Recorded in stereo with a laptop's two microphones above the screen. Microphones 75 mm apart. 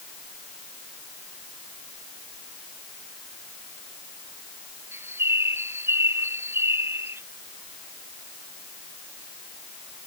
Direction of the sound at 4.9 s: 35° right (ahead or behind).